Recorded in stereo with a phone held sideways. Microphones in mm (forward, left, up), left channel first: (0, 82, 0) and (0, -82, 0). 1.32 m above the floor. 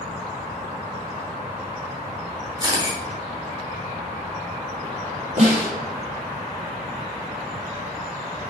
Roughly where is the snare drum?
Right.